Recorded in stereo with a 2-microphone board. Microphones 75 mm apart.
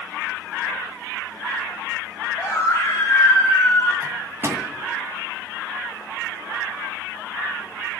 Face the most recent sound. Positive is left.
turn(degrees=-30)  # may be behind; listen again after turning